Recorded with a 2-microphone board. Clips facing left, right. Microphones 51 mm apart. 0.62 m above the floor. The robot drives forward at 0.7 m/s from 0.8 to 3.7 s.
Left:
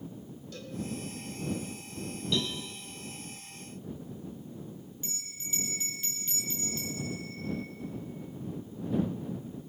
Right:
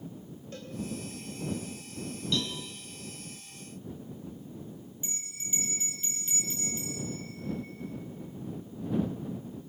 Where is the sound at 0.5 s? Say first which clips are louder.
Right 1 dB; 35° right (ahead or behind), 4 m.